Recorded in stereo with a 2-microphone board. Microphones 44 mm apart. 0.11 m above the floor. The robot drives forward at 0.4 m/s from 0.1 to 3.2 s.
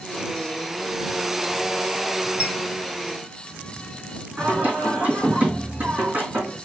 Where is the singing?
40° right (ahead or behind), 3 m.